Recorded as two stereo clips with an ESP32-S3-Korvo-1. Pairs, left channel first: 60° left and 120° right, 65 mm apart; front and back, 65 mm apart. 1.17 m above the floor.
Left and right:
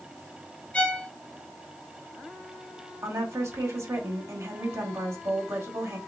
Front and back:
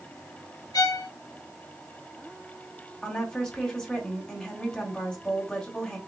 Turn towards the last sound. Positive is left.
turn(degrees=-80)